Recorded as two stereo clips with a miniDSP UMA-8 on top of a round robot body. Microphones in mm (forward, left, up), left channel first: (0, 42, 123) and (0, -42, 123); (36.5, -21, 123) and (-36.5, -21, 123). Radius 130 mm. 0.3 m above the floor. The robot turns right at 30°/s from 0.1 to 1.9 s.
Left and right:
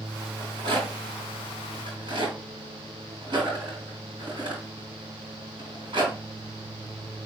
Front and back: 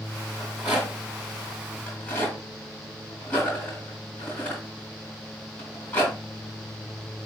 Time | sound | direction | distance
0.4 | a rattle | 115° right | 3.5 m